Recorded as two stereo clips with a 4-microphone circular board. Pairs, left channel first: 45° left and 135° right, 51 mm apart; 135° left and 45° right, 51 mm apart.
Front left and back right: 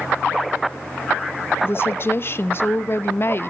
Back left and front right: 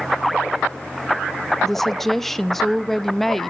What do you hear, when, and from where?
1.6 s a woman speaking: 50° left, 0.6 m